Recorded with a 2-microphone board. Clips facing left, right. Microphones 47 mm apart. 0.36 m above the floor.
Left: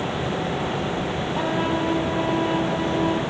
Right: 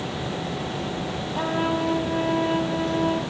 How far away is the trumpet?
About 3 m.